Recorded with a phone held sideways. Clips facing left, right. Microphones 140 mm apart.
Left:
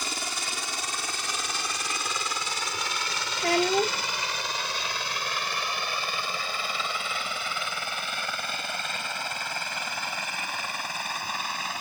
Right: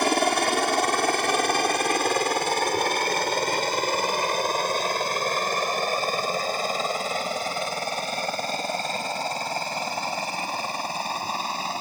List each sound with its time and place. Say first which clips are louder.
0.0 s a helicopter: right 15 dB; 65° right (ahead or behind); by 11.8 s 30° right (ahead or behind)
3.4 s a child speaking: left 2 dB; 90° left